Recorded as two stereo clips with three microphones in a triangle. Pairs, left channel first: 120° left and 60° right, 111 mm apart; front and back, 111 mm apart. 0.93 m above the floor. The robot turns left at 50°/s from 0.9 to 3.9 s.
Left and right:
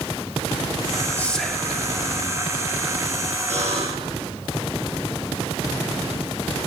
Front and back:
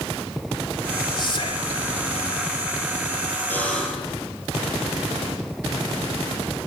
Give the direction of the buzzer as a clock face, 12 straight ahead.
2 o'clock.